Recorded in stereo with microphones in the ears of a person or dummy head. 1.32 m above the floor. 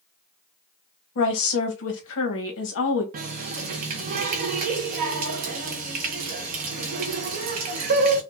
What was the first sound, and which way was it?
A woman speaking, 70° left (ahead or behind).